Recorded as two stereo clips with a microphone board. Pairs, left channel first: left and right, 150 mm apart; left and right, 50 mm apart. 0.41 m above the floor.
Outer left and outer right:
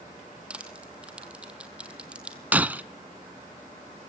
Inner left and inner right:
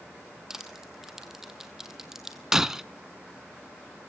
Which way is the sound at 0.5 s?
10° right (ahead or behind).